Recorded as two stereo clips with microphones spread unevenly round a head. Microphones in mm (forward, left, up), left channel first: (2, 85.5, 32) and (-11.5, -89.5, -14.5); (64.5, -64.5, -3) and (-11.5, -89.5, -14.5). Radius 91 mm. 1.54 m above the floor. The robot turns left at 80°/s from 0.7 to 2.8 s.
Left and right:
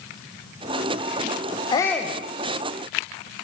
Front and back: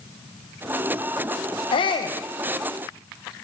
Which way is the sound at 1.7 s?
20° left.